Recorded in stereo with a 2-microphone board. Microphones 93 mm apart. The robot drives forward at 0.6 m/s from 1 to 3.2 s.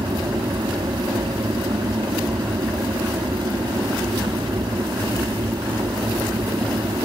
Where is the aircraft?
55° right (ahead or behind).